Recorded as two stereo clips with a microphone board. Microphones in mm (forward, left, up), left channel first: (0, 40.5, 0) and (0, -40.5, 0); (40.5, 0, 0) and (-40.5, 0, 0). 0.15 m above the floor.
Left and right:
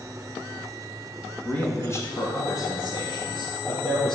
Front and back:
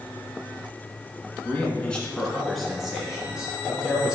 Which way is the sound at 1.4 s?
40° left.